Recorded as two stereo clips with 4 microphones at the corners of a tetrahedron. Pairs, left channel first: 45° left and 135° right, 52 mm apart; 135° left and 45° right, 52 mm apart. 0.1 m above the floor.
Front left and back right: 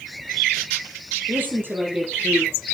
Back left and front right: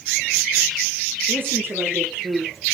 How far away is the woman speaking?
About 5 m.